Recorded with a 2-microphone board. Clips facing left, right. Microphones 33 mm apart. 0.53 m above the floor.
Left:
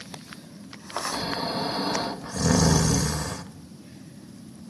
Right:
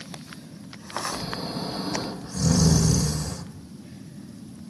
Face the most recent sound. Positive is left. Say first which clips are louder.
# left 3 dB
turn(degrees=55)  # may be behind; listen again after turning